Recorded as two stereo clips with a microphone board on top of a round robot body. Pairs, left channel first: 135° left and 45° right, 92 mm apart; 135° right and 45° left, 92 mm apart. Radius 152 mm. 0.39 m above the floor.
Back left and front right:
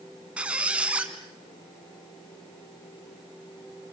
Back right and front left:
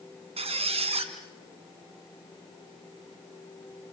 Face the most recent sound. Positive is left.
turn(degrees=35)